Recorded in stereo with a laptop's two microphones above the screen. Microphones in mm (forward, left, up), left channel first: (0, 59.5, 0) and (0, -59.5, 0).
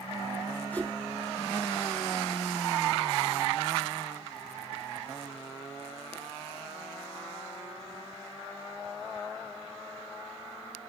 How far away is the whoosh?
About 1.1 m.